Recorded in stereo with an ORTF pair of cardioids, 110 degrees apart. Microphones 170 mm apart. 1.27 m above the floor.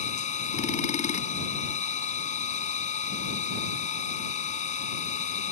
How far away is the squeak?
No squeak in this recording.